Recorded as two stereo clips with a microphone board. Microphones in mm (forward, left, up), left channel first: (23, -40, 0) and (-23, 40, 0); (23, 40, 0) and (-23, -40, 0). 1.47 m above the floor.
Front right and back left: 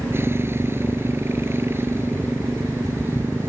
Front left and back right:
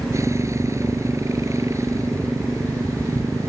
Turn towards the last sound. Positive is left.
turn(degrees=-175)